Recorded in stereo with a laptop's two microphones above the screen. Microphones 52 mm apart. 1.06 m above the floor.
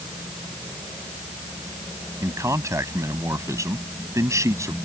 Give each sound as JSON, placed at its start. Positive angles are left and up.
{"t": 2.2, "sound": "a man speaking", "side_deg": -85}